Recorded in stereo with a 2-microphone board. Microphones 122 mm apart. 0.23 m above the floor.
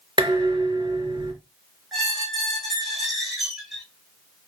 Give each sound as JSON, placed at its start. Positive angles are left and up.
{"t": 0.2, "sound": "dishes clattering", "side_deg": -40, "distance_m": 2.5}
{"t": 1.9, "sound": "a squeak", "side_deg": 0, "distance_m": 3.5}